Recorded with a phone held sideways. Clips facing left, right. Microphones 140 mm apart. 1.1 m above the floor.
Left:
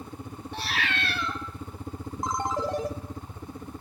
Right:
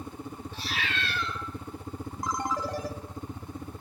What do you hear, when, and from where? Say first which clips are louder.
0.5 s a cat meowing: left 4 dB; 65° left (ahead or behind), 1.1 m
2.2 s a ringtone: left 3 dB; 25° left (ahead or behind), 0.8 m